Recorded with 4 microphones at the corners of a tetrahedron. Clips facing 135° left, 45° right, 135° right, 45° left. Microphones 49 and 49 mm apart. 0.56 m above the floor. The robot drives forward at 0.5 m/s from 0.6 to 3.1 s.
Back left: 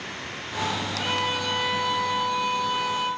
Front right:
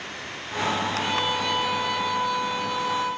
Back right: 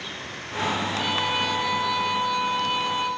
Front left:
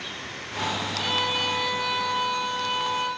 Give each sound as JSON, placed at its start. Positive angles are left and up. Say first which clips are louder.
{"t": 1.0, "sound": "a violin", "louder": "front right 1 dB, front left 1 dB", "azimuth_deg": 145, "distance_m": 4.5}